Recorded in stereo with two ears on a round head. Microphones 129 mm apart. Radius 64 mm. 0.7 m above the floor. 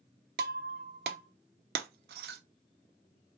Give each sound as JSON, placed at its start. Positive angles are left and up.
{"t": 0.4, "sound": "breaking glass", "side_deg": -70, "distance_m": 0.7}